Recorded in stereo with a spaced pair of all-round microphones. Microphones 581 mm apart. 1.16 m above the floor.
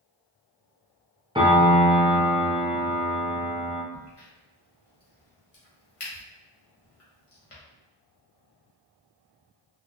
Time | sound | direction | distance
1.4 | a piano | 10° right (ahead or behind) | 0.7 m
3.9 | a crack | 65° left (ahead or behind) | 1.2 m